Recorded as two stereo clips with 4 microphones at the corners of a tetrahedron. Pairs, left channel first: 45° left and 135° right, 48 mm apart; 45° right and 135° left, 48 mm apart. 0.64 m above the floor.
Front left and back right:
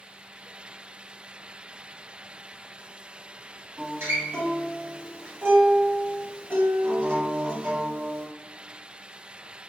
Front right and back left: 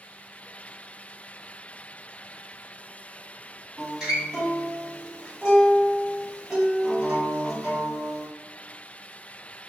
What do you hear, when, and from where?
3.8 s a guitar: 145° right, 1.8 m